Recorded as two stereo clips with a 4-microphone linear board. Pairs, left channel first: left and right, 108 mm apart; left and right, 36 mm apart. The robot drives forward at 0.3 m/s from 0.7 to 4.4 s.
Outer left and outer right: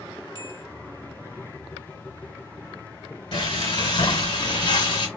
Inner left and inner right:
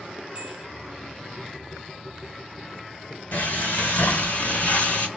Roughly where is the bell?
Right.